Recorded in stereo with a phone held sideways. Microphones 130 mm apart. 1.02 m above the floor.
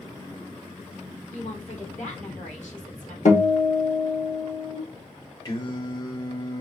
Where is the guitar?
65° left (ahead or behind), 1.1 m.